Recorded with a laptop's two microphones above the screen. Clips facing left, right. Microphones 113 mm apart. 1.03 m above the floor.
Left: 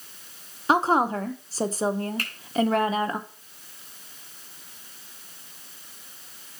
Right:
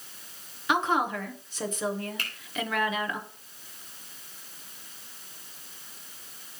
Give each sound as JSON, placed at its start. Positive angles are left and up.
{"t": 0.7, "sound": "a woman speaking", "side_deg": 35, "distance_m": 0.7}
{"t": 2.2, "sound": "a finger snap", "side_deg": 40, "distance_m": 3.0}